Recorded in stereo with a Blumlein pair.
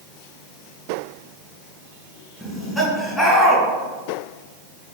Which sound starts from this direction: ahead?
Laughter, at 2.4 s.